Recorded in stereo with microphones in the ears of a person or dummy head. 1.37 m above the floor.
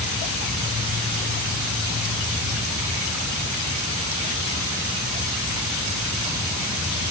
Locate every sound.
Only background noise.